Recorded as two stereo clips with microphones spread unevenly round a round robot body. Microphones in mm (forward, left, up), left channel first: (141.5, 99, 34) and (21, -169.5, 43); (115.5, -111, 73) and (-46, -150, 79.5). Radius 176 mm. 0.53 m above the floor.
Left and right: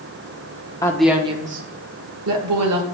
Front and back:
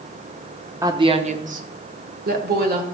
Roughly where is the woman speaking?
Behind left.